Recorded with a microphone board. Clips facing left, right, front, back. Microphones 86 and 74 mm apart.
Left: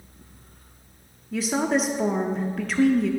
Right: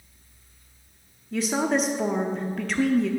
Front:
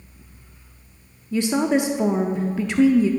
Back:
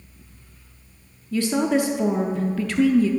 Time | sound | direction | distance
1.3 | a woman speaking | 5° left | 0.6 m